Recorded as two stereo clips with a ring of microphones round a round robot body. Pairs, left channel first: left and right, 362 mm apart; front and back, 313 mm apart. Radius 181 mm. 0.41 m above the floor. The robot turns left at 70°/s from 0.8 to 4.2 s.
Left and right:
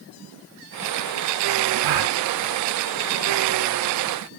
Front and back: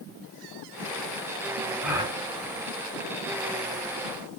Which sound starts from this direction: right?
A gasp, at 1.8 s.